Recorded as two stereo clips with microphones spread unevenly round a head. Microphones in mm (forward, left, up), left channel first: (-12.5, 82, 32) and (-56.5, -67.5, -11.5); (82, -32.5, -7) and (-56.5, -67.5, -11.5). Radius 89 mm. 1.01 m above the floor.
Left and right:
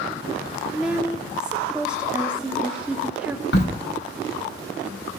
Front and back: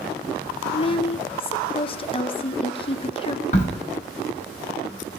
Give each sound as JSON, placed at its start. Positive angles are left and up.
{"t": 0.7, "sound": "a woman speaking", "azimuth_deg": -35, "distance_m": 0.5}
{"t": 3.5, "sound": "a crack", "azimuth_deg": 50, "distance_m": 1.2}